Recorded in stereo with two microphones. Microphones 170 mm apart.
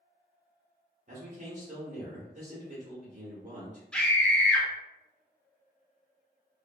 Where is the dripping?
No dripping in this recording.